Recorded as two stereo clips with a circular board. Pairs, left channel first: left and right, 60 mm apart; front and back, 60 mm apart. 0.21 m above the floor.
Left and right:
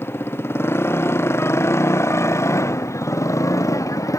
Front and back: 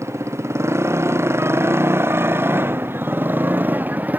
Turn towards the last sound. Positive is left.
turn(degrees=115)